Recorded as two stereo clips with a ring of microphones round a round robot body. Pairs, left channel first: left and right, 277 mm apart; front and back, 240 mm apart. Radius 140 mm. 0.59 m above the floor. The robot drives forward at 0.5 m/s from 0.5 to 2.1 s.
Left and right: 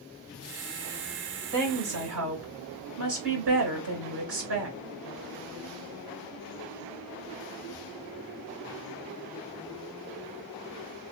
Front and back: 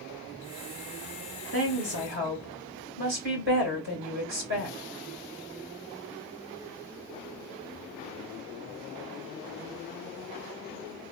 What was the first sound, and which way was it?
A woman speaking, 120° right.